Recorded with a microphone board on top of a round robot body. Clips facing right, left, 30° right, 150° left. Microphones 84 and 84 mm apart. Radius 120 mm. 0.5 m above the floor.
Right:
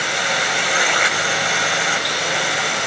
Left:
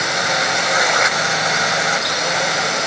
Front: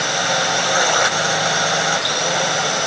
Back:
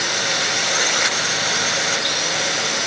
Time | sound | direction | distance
0.0 | a drone | 15° left | ?